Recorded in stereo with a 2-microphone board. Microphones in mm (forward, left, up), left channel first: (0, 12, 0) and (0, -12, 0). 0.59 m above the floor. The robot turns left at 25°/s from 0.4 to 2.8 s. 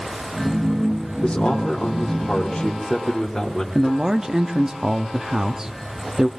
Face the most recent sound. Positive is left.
turn(degrees=-20)  # may be behind; listen again after turning